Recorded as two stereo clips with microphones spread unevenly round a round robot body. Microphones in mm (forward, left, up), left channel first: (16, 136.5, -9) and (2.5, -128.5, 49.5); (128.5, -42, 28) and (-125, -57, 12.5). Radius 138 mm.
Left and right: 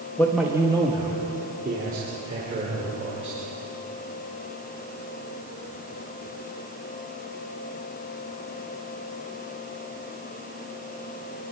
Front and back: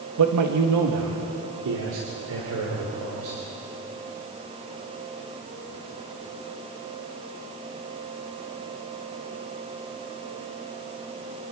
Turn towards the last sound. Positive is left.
turn(degrees=-150)